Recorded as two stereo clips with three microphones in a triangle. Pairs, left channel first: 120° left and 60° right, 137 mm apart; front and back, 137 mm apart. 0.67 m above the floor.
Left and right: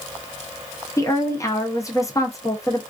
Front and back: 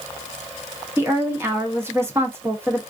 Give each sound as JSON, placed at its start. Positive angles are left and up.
{"t": 1.0, "sound": "a woman speaking", "azimuth_deg": 135, "distance_m": 0.9}